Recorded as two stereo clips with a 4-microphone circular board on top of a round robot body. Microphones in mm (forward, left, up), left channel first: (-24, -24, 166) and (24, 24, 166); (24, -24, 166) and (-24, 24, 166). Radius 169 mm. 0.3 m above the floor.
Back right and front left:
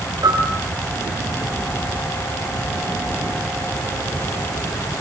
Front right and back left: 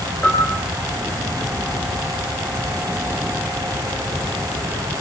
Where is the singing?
No singing in this recording.